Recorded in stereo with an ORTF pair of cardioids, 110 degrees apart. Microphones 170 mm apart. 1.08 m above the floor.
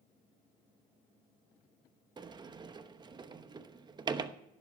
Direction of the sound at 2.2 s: 25° right.